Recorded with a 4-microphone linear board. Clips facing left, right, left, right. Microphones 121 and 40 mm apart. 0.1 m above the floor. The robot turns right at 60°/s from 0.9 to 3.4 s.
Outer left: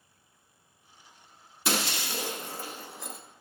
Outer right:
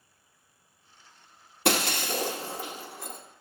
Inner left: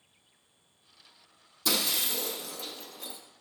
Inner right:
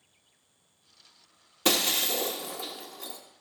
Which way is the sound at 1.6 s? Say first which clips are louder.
Outer right 5 dB, inner right 4 dB; 65° right (ahead or behind).